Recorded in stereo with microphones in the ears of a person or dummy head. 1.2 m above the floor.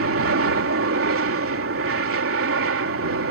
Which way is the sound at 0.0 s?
60° right (ahead or behind).